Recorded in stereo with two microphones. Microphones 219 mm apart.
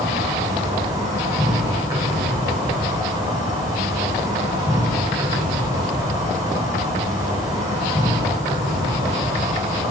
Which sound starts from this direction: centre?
An insect, at 0.0 s.